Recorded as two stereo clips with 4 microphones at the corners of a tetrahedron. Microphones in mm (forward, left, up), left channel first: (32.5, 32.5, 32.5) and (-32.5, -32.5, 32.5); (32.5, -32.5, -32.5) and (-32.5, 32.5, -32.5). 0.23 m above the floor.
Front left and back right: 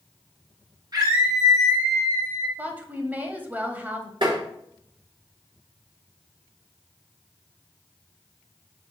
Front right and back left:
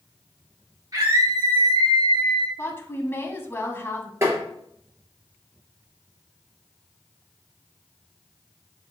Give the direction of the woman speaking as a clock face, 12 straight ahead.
3 o'clock.